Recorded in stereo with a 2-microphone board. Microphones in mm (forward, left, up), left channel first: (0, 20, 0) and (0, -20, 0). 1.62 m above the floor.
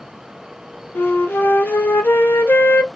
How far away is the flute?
About 0.7 m.